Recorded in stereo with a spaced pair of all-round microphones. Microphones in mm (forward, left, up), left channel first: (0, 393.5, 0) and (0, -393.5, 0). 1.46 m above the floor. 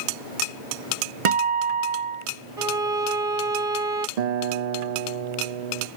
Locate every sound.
1.2 s a guitar: 45° right (ahead or behind)
2.6 s a violin: 45° right (ahead or behind)
4.2 s a guitar: 60° right (ahead or behind)